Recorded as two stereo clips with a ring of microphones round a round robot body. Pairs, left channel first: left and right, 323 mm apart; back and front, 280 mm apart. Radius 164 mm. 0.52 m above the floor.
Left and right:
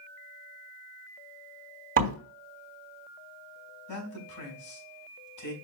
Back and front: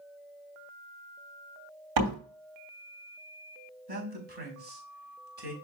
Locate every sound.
2.0 s a door slam: 25° right, 3 m
3.9 s a man speaking: 55° left, 4.5 m